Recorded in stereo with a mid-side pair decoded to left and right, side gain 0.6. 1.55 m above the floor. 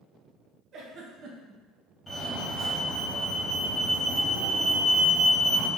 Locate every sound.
0.7 s a giggle: 50° right, 1.0 m
2.1 s a fire alarm: 5° left, 1.6 m